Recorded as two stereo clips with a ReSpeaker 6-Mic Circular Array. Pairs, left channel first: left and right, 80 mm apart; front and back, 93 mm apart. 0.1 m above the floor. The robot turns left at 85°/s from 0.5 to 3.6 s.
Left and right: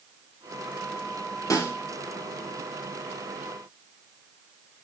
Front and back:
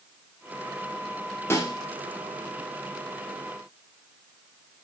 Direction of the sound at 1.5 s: 55° left.